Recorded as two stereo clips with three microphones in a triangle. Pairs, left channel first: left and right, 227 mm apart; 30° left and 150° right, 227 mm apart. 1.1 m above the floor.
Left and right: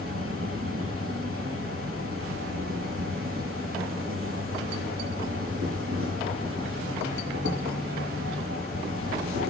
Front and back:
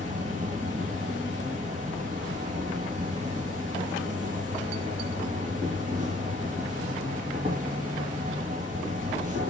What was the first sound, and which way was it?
An insect, 95° right.